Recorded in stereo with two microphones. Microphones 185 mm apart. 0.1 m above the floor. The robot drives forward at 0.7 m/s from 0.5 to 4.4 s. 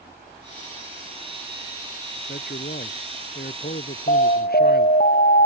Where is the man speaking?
65° left (ahead or behind); by 5.0 s 60° left (ahead or behind).